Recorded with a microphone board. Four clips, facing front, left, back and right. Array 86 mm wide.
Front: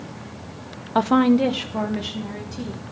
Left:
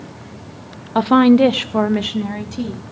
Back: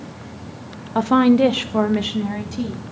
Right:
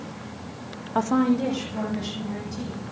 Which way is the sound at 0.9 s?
55° left.